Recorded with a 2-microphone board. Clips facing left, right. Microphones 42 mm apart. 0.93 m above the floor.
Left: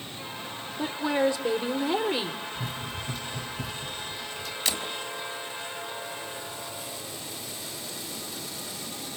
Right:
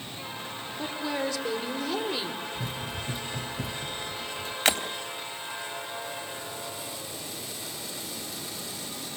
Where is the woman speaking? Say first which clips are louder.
Left 6 dB; 20° left (ahead or behind), 3 m.